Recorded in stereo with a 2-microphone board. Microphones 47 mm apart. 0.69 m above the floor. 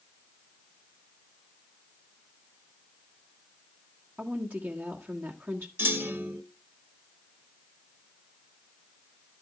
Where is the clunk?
65° right (ahead or behind), 1.2 m.